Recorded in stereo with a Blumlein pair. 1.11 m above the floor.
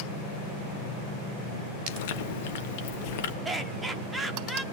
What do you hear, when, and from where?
1.9 s chewing: 50° left, 1.1 m
3.5 s laughter: 10° right, 1.9 m